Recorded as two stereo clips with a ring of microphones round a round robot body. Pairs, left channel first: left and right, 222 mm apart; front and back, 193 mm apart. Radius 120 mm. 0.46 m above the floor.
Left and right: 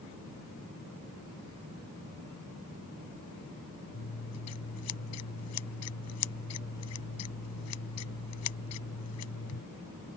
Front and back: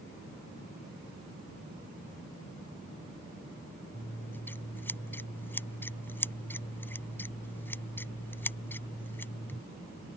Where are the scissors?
80° left.